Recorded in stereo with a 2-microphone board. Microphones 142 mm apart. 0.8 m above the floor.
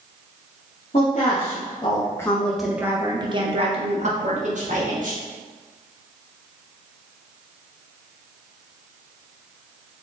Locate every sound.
0.9 s a woman speaking: 50° left (ahead or behind), 1.1 m; by 5.2 s 60° right (ahead or behind), 1.6 m